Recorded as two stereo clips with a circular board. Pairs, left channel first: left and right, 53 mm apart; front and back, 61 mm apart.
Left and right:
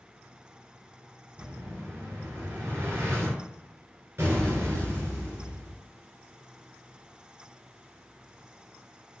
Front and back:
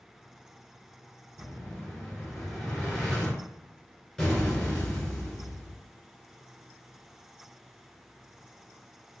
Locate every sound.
1.4 s an explosion: 80° right, 1.8 m